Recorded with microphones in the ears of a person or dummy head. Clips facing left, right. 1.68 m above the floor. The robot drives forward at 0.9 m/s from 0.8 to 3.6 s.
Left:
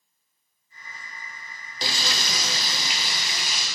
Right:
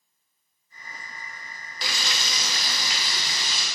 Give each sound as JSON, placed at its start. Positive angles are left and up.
{"t": 1.8, "sound": "frying", "side_deg": 25, "distance_m": 0.6}